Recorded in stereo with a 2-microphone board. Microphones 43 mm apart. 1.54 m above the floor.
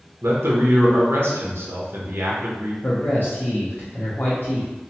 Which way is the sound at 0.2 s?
70° right (ahead or behind).